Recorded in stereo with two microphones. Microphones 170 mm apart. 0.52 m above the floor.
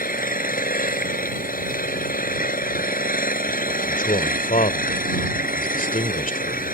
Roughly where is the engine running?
Left.